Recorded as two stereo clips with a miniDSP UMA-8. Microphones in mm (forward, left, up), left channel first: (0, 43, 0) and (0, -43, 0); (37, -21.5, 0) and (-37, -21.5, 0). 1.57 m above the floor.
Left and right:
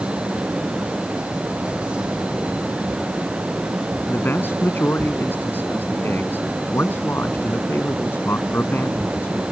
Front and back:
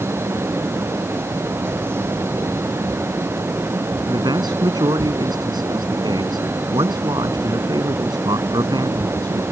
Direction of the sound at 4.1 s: 155° left.